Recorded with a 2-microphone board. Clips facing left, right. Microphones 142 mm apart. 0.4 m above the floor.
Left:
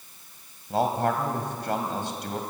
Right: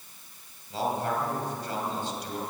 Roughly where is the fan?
No fan in this recording.